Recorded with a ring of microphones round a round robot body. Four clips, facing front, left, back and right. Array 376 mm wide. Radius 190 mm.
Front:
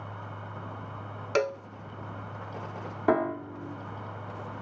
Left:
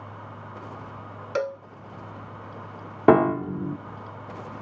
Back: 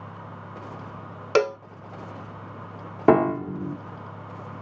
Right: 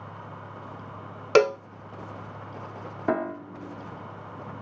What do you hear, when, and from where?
1.4 s a cowbell: 120° right
3.1 s a piano: 130° left